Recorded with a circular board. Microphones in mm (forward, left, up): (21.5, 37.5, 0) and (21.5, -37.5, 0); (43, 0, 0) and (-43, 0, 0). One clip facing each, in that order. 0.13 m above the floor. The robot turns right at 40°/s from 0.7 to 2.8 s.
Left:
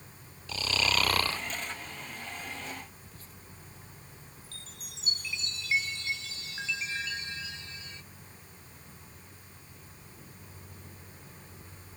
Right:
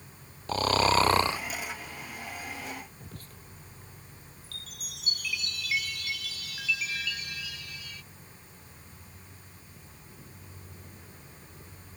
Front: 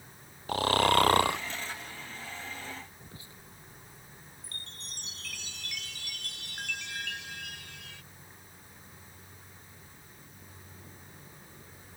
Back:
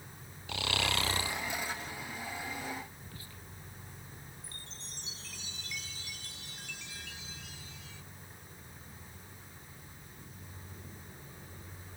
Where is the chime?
25° left.